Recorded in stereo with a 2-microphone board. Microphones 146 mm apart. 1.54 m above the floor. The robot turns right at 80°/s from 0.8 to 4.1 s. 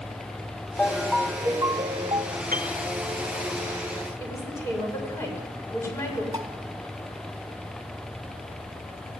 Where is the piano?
75° right (ahead or behind), 3.5 m; by 2.8 s 55° right (ahead or behind), 3.5 m.